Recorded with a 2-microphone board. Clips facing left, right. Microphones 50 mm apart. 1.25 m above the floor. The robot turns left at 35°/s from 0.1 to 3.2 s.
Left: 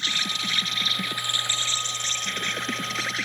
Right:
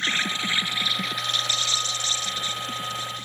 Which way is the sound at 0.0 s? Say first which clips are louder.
Right 3 dB; 150° right.